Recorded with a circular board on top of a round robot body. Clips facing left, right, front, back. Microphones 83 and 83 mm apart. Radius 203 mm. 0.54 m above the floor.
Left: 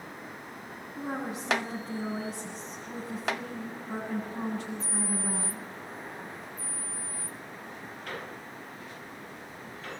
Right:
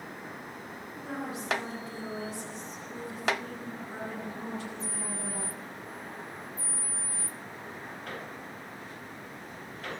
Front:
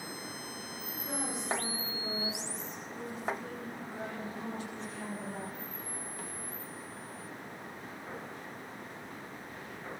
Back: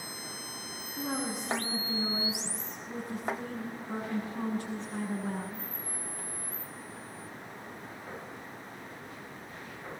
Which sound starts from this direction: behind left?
A woman speaking, at 1.0 s.